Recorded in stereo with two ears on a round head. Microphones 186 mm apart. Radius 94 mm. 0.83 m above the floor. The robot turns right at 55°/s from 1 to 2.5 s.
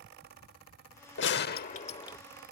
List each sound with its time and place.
1.2 s a gunshot: 105° left; by 2.2 s 160° left